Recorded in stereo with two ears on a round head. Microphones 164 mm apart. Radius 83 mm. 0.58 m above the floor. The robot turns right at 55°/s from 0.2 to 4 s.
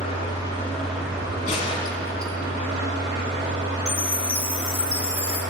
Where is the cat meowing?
No cat meowing in this recording.